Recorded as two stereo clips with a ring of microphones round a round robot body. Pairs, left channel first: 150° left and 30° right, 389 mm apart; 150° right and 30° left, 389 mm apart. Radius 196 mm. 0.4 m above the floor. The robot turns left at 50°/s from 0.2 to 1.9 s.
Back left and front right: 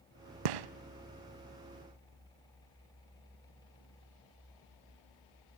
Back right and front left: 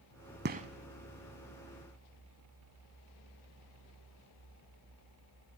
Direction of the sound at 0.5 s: 35° right.